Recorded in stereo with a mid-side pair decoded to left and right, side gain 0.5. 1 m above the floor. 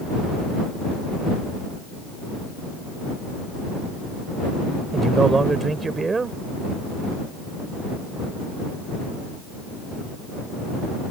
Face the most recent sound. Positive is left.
turn(degrees=-30)